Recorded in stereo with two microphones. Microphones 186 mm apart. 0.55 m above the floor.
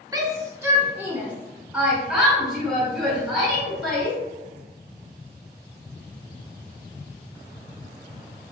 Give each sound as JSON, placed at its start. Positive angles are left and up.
{"t": 0.1, "sound": "a shout", "side_deg": -20, "distance_m": 0.9}